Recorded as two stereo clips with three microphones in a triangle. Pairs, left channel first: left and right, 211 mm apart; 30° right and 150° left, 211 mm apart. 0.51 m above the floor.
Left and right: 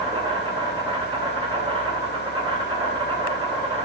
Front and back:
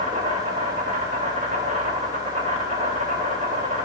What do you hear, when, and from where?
0.0 s an insect: 155° right, 3 m